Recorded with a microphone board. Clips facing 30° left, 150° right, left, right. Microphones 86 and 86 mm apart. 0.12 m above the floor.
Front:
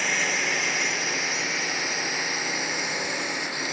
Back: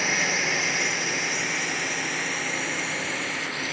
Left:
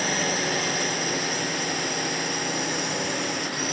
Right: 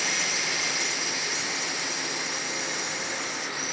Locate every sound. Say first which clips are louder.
0.0 s a drone: back 1 dB, left 5 dB; 125° left; by 3.7 s 100° left